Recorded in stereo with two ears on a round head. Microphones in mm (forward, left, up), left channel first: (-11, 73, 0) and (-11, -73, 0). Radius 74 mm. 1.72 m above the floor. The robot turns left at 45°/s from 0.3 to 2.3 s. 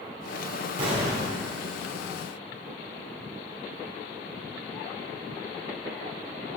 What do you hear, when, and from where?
0.8 s an explosion: 35° right (ahead or behind), 1.7 m; by 1.4 s 40° right (ahead or behind), 1.7 m